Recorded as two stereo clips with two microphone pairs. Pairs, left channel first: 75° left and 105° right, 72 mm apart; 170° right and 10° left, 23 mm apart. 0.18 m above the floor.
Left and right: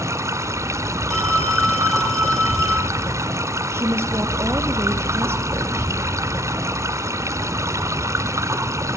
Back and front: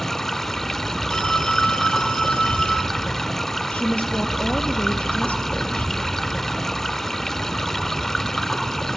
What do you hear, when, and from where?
0.0 s running water: 105° right, 1.7 m
1.1 s a phone ringing: 160° left, 3.5 m
3.7 s a woman speaking: 155° right, 3.5 m